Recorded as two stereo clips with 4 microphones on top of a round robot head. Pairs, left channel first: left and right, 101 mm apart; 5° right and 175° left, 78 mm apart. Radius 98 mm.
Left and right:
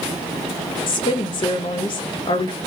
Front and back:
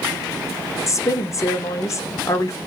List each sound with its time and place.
0.9 s a woman speaking: 45° left, 0.7 m